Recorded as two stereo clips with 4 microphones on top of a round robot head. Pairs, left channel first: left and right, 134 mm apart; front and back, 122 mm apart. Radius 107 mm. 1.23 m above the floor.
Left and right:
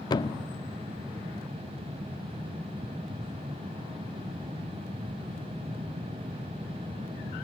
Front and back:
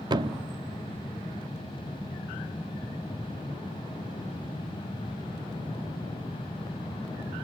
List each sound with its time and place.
0.1 s a thud: 135° left, 0.9 m